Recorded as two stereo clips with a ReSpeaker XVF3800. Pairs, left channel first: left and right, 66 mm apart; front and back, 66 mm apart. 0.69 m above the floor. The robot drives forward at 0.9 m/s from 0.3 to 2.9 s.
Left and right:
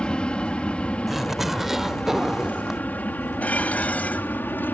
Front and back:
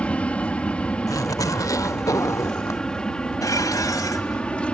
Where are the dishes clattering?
20° left.